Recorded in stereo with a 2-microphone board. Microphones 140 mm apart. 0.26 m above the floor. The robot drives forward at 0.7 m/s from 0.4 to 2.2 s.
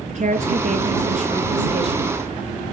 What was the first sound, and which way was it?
A woman speaking, 55° right (ahead or behind).